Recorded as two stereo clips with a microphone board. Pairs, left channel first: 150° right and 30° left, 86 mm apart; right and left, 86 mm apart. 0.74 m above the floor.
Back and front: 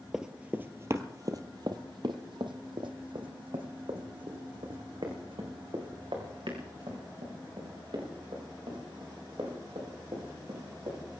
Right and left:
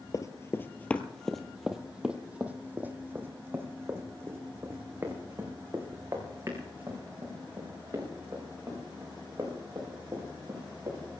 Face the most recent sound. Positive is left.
turn(degrees=40)